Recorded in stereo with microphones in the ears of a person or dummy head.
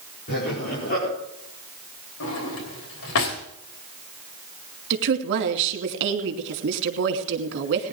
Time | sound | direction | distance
0.3 | laughter | 50° left (ahead or behind) | 5.5 m
2.2 | a drawer | 65° left (ahead or behind) | 3 m
4.9 | a woman speaking | 60° right (ahead or behind) | 2.5 m